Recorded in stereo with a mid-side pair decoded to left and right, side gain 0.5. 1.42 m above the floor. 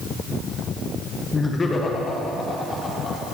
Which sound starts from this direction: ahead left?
Laughter, at 1.3 s.